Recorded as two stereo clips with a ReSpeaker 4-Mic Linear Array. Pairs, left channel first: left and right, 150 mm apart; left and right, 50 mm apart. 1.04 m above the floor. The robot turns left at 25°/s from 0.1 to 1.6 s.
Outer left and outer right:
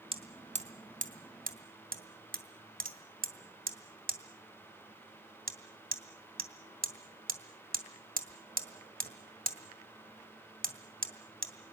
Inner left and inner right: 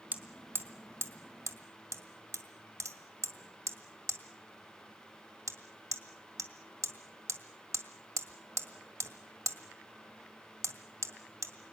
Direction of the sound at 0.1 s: 35° right (ahead or behind).